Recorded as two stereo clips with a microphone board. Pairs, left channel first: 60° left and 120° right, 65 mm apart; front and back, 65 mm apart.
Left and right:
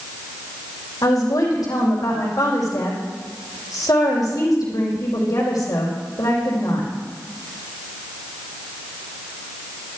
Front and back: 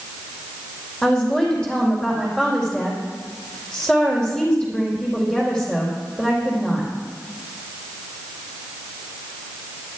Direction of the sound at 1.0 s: 80° left.